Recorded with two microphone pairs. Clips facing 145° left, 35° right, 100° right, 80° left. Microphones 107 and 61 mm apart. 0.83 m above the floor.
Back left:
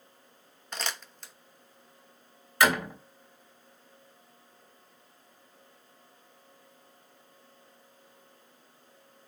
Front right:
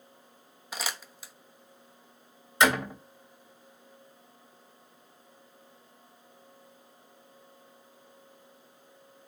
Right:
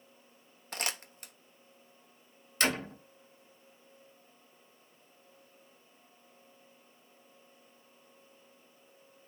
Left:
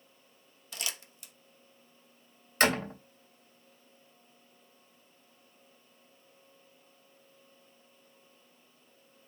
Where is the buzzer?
No buzzer in this recording.